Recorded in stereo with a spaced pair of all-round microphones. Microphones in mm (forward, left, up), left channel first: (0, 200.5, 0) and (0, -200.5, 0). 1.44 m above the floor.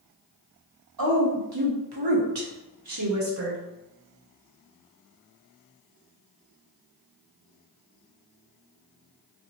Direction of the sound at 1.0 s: 55° right (ahead or behind).